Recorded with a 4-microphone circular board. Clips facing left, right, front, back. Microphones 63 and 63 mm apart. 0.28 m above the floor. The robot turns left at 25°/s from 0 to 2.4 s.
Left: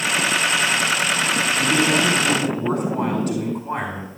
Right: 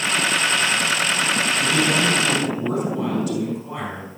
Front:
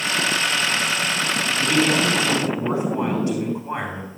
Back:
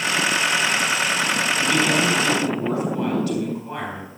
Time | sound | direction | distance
1.6 | a man speaking | 80° left | 3 m